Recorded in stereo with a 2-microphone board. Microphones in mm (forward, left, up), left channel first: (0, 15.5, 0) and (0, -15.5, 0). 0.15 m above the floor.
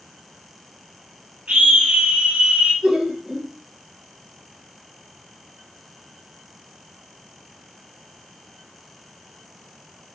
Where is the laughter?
35° right (ahead or behind), 2.5 m.